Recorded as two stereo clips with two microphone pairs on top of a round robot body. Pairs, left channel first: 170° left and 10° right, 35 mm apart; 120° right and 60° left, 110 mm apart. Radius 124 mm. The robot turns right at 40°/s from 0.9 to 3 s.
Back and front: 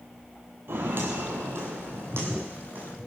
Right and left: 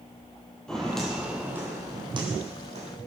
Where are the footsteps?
35° right, 1.8 m; by 2.9 s 40° left, 3 m.